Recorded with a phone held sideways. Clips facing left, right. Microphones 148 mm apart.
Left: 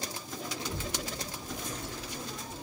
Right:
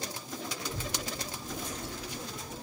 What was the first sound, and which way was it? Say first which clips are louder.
A child speaking: left 1 dB; 25° left (ahead or behind).